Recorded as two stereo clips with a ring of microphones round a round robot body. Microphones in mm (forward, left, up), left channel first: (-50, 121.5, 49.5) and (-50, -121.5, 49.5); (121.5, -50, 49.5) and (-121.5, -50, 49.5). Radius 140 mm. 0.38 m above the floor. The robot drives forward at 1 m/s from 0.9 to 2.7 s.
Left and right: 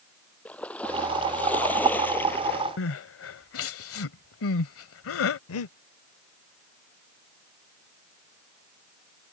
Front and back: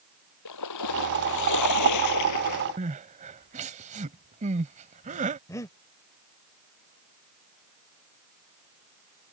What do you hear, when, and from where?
0.5 s a splash: 5° left; by 2.7 s 10° left
2.8 s crying: 120° left
5.5 s breathing: 80° left